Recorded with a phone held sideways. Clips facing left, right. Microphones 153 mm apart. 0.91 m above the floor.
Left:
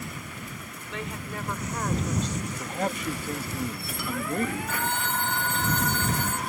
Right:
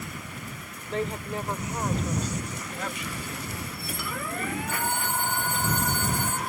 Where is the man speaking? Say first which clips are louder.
Left 5 dB; 45° left (ahead or behind).